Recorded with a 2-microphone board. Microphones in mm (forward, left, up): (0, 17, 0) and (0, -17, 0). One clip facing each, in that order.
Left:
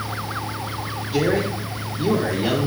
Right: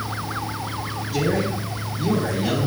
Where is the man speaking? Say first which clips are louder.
Left 2 dB; 35° left (ahead or behind), 2.5 m.